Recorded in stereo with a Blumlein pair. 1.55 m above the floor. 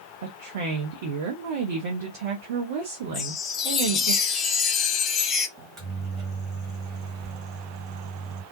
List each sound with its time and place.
0.2 s a woman speaking: 55° right, 0.8 m
3.1 s a chime: 25° left, 0.5 m
5.6 s a microwave: 30° right, 1.3 m